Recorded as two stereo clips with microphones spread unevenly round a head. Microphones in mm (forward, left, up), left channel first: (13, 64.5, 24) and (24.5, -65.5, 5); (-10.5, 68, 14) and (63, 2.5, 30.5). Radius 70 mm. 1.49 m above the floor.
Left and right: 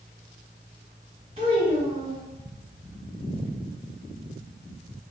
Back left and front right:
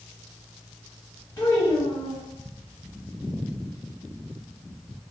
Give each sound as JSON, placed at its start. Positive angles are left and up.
{"t": 1.4, "sound": "a child speaking", "azimuth_deg": -140, "distance_m": 1.2}